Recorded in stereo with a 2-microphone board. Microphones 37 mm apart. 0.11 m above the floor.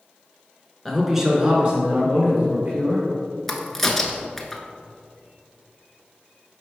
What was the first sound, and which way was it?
A man speaking, centre (ahead or behind).